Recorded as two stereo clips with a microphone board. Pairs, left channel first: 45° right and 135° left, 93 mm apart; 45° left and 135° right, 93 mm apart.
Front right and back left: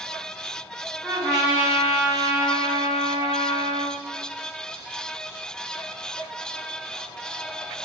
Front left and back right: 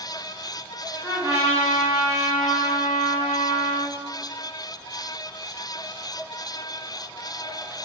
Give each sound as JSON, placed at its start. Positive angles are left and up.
{"t": 1.0, "sound": "a trumpet", "azimuth_deg": 170, "distance_m": 1.9}